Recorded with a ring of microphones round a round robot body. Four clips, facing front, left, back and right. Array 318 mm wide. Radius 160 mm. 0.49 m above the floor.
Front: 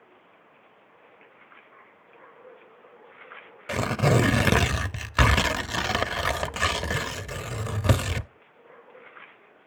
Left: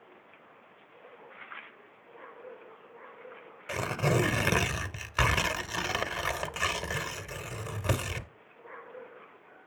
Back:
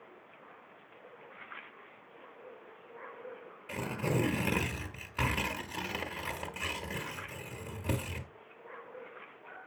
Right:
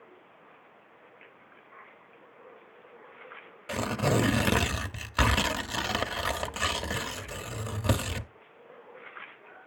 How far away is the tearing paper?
About 0.6 m.